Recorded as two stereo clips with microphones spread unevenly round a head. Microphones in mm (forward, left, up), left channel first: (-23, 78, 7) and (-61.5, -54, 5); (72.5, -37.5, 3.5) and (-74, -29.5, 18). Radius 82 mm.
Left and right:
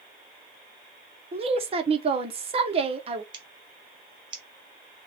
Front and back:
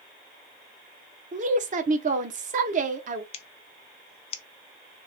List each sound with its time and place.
1.3 s a woman speaking: 150° right, 0.8 m
3.3 s scissors: 50° right, 0.5 m